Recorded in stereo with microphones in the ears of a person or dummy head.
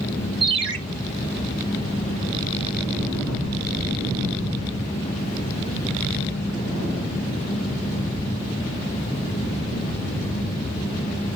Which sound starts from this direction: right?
A ringtone, at 0.4 s.